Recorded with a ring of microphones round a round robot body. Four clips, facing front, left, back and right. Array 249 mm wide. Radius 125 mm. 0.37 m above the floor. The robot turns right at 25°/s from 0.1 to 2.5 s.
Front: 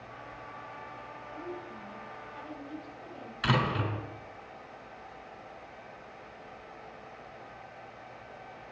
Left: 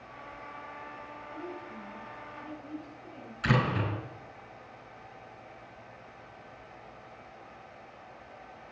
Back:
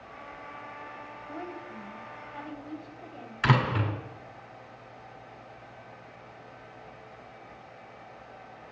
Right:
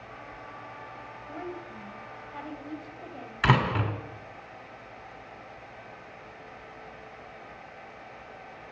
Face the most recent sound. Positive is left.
turn(degrees=-105)